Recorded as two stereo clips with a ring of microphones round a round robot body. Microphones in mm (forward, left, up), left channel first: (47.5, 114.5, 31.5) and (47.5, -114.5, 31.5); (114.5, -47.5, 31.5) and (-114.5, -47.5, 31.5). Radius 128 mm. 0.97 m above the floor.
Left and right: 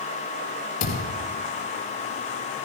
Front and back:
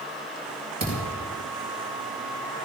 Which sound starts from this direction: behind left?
A thud, at 0.8 s.